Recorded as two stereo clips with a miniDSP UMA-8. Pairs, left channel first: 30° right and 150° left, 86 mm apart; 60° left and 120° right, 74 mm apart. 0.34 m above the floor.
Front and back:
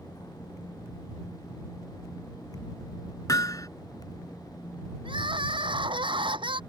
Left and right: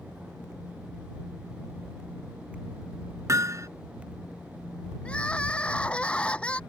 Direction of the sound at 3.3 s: 75° right.